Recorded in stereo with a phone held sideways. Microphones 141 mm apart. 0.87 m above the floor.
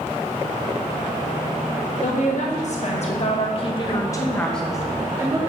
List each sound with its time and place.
2.0 s a woman speaking: 60° left (ahead or behind), 1.5 m; by 5.4 s 25° right (ahead or behind), 0.8 m